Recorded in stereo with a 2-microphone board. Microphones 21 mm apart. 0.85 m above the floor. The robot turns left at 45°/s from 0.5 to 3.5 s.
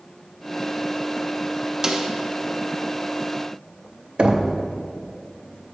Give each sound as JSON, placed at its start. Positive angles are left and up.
{"t": 1.8, "sound": "a snare drum", "side_deg": -25, "distance_m": 0.6}
{"t": 4.2, "sound": "knocking", "side_deg": -55, "distance_m": 0.5}